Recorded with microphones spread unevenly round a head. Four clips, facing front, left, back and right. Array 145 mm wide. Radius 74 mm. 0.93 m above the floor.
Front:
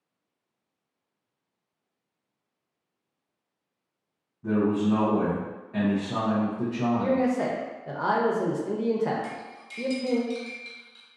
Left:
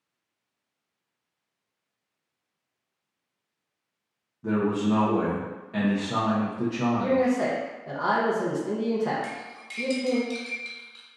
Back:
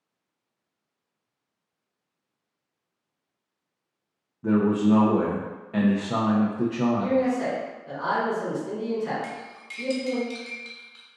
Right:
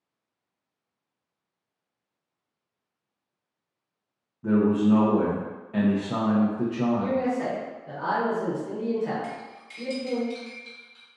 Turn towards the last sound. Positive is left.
turn(degrees=140)